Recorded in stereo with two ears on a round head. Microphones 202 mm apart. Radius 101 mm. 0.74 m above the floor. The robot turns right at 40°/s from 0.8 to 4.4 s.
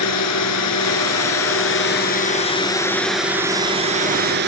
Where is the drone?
85° left; by 4.5 s 130° right.